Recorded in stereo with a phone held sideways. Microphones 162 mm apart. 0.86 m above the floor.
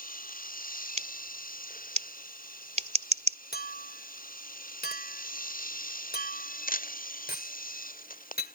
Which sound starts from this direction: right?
Scissors, at 1.0 s.